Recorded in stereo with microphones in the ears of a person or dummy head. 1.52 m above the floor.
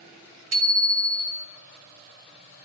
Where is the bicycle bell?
70° right (ahead or behind), 4 m.